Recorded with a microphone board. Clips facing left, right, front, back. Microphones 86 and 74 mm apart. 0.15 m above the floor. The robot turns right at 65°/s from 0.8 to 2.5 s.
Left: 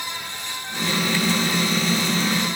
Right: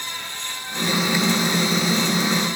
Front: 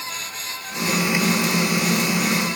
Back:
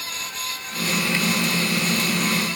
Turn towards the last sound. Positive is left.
No sound to turn to.